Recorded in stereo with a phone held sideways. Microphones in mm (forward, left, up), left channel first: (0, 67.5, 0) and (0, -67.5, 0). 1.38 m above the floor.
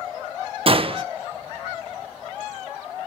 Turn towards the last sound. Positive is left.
turn(degrees=-45)  # may be behind; listen again after turning